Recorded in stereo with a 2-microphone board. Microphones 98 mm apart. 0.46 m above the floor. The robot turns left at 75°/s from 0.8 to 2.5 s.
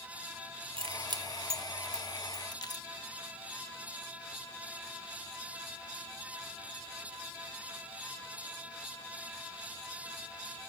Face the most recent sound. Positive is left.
turn(degrees=40)  # may be behind; listen again after turning